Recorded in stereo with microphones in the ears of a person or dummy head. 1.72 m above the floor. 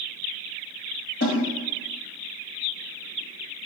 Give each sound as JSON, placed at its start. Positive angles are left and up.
{"t": 1.2, "sound": "a snare drum", "side_deg": 60, "distance_m": 2.0}